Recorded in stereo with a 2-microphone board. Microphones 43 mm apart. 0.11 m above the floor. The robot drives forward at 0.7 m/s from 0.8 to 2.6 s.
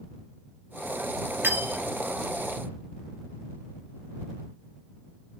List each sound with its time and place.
1.4 s cutlery clinking: 50° right (ahead or behind), 1.2 m; by 1.9 s 45° right (ahead or behind), 1.3 m